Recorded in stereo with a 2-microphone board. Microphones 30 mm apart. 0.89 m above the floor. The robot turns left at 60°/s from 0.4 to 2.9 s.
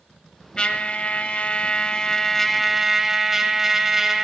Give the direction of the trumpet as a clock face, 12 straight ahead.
8 o'clock.